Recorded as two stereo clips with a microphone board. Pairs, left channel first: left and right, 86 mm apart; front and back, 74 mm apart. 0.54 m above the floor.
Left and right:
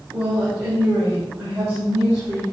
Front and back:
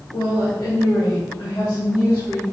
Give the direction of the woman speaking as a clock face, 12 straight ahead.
1 o'clock.